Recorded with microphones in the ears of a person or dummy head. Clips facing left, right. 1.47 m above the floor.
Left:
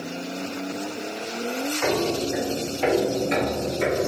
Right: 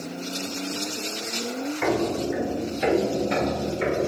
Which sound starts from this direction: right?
Footsteps, at 1.8 s.